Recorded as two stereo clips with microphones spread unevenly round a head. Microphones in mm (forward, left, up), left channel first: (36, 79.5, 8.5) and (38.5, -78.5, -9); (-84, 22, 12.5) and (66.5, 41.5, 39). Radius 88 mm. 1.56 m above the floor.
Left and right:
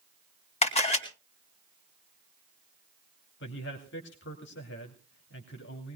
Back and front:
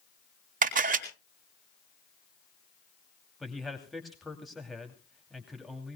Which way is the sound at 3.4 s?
95° left.